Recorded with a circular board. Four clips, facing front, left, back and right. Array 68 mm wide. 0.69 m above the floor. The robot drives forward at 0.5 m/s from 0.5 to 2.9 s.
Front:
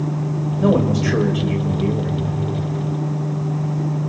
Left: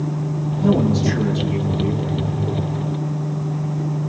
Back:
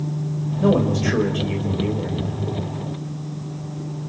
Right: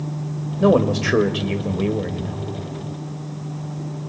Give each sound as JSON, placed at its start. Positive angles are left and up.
{"t": 0.6, "sound": "a man speaking", "azimuth_deg": -85, "distance_m": 3.5}